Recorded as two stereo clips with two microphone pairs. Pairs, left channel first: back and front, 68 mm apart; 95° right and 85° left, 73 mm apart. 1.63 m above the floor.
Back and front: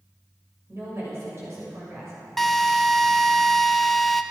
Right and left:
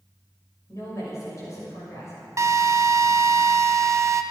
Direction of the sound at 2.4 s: 90° left.